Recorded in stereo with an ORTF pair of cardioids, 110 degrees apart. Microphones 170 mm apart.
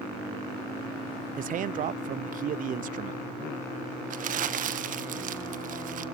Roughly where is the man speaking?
Ahead right.